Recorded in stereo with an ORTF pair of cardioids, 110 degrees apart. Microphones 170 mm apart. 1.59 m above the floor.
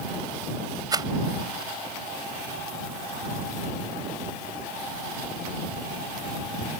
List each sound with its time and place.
0.9 s a rattle: 25° right